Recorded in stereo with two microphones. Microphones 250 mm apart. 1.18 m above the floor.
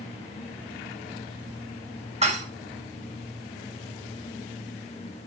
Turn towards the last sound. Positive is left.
turn(degrees=-25)  # may be behind; listen again after turning